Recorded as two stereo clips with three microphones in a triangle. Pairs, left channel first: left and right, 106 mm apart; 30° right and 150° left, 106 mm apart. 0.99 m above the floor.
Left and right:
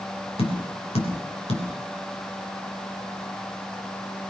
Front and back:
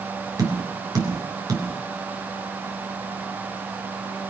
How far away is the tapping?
About 3.5 m.